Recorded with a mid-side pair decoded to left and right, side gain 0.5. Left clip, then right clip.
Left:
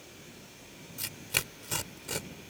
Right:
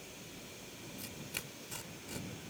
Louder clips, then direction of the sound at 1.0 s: Left 12 dB; 65° left.